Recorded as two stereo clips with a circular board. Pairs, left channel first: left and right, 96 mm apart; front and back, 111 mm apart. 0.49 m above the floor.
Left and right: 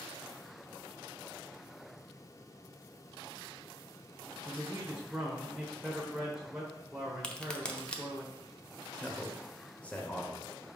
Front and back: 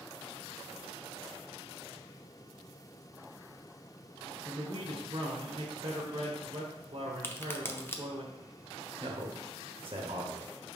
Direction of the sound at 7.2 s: 25° left.